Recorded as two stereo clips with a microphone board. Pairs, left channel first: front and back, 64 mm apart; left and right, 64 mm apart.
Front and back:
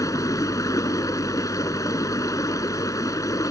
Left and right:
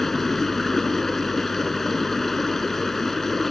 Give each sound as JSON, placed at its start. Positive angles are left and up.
{"t": 0.0, "sound": "running water", "azimuth_deg": 5}